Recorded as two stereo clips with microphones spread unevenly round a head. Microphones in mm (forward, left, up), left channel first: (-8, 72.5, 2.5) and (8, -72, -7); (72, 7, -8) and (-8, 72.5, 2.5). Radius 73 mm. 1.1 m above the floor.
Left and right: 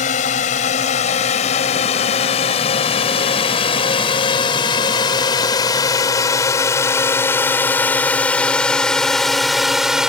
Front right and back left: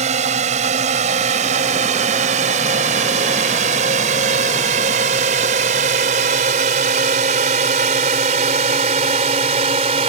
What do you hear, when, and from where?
0.0 s a drone: 135° left; by 10.1 s 170° right